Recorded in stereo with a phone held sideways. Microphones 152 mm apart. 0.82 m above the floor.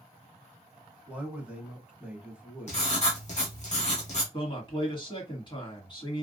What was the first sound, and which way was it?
A man speaking, 10° right (ahead or behind).